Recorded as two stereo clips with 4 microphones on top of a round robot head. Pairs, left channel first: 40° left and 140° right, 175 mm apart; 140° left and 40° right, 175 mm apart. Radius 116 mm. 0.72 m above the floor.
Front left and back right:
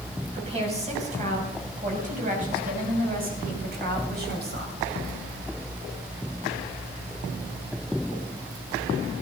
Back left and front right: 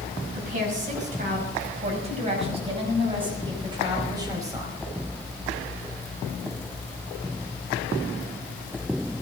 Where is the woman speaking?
85° right, 5.5 m; by 4.7 s 115° right, 5 m.